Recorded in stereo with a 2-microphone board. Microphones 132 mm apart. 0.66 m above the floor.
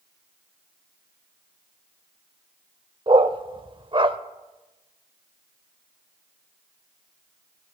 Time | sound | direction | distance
3.1 | a dog barking | 40° right (ahead or behind) | 0.6 m